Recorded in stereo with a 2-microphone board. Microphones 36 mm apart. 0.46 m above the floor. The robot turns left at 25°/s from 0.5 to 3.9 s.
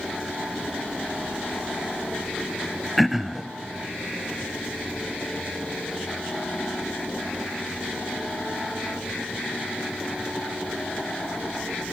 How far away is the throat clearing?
About 0.5 m.